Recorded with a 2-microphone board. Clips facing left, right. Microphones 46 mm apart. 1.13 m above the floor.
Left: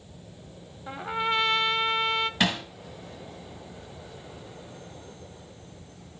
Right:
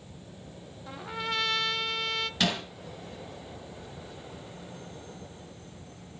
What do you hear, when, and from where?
0.9 s a trumpet: 25° left (ahead or behind), 0.7 m
2.4 s hammering: 15° left (ahead or behind), 4 m